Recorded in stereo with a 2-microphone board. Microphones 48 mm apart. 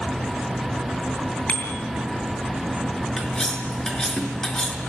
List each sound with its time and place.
1.5 s a bicycle bell: 30° left (ahead or behind), 7 m
3.2 s cutlery clinking: 15° left (ahead or behind), 4.5 m